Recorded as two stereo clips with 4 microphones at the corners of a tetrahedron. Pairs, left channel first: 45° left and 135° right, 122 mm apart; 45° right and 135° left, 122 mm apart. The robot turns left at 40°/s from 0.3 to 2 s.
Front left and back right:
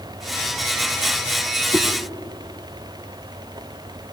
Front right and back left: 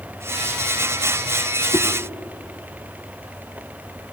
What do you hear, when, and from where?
1.7 s a whoosh: 30° right, 0.6 m; by 1.9 s 35° right, 0.6 m